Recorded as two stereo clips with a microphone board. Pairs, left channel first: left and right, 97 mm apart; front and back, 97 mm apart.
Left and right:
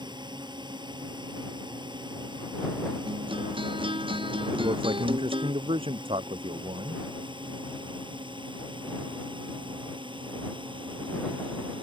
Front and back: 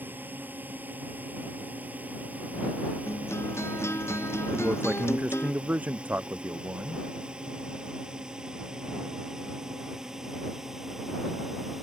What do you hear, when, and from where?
0.0 s a drone: 115° right; by 11.8 s 95° right
3.1 s a guitar: 65° right
4.5 s a man speaking: 105° right